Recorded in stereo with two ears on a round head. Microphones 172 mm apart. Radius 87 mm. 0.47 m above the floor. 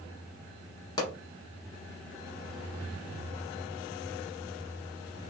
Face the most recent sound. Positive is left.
turn(degrees=20)  # may be behind; listen again after turning